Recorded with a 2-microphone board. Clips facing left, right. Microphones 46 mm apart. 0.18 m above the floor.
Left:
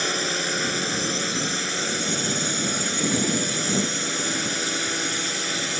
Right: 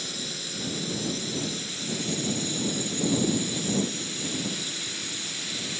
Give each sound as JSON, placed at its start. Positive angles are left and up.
{"t": 0.0, "sound": "a drone", "side_deg": 60}